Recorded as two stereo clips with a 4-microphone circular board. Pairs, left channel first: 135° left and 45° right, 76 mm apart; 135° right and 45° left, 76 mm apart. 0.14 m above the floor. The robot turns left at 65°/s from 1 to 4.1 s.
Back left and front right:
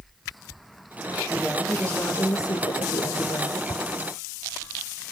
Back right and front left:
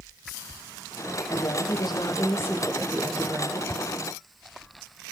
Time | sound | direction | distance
1.3 | a woman speaking | 120° right | 4 m
3.7 | a whoosh | 155° left | 2 m